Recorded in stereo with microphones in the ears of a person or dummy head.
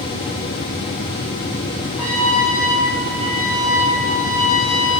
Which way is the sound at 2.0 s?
10° left (ahead or behind).